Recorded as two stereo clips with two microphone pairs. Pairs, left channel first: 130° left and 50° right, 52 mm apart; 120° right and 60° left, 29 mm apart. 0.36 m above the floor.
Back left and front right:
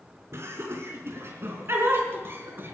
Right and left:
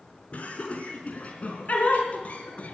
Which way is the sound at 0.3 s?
85° right.